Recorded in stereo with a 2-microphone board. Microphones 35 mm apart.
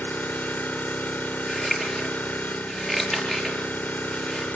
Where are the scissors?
10° left (ahead or behind), 5.5 m.